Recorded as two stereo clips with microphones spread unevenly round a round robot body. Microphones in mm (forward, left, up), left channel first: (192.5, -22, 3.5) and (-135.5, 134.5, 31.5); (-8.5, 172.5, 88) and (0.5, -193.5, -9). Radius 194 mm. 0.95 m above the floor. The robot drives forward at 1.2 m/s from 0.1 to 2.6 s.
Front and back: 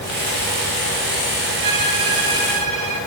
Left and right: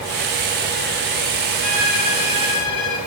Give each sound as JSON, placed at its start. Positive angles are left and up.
{"t": 1.6, "sound": "a violin", "azimuth_deg": 115, "distance_m": 4.5}